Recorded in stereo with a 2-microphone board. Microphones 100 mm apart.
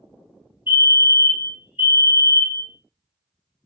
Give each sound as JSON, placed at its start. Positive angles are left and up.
{"t": 0.7, "sound": "a fire alarm", "side_deg": -20, "distance_m": 2.0}